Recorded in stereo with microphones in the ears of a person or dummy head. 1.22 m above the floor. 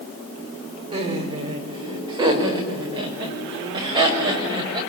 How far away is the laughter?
About 4.5 m.